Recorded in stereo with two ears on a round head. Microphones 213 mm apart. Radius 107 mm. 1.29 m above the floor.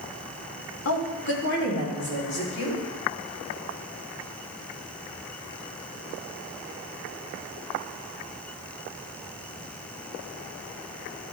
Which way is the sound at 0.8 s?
60° left (ahead or behind).